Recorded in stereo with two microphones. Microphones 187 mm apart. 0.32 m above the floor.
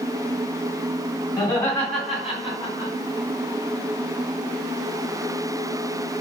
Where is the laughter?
20° left (ahead or behind), 2.5 m; by 2.9 s 15° right (ahead or behind), 3.5 m.